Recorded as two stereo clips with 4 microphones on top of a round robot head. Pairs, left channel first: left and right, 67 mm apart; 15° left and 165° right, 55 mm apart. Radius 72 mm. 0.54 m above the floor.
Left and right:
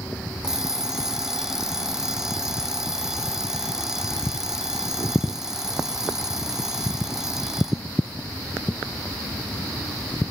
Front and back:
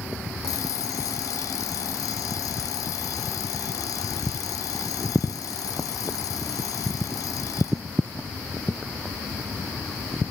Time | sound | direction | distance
0.4 | an alarm clock | 10° right | ?